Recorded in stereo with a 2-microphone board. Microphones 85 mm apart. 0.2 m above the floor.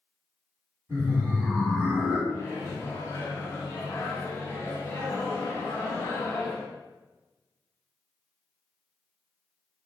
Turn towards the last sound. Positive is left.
turn(degrees=30)  # may be behind; listen again after turning